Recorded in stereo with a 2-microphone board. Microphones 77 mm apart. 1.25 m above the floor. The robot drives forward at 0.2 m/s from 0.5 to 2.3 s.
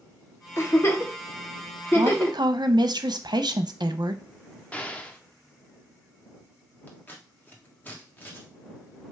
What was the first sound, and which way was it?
A giggle, 35° left (ahead or behind).